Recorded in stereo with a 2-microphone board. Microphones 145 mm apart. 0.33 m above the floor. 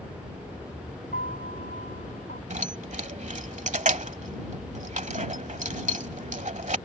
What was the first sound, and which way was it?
A piano, 85° left.